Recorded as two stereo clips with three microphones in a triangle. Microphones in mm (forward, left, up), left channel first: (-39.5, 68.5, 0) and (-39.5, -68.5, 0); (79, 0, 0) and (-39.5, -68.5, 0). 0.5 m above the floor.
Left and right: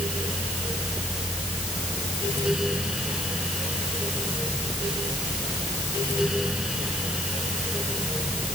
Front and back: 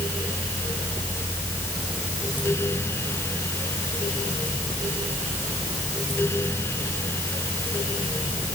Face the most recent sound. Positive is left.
No sound to turn to.